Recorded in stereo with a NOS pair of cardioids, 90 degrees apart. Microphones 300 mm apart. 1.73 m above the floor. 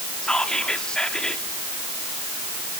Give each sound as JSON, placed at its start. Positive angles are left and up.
{"t": 0.2, "sound": "whispering", "azimuth_deg": 5, "distance_m": 4.0}